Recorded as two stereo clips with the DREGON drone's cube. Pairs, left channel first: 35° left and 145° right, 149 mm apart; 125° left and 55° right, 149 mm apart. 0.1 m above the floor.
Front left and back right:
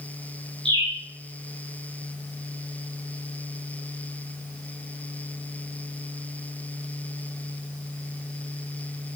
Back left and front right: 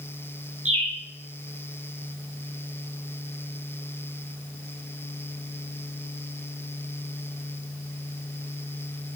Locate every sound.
0.7 s a bird: 90° right, 6 m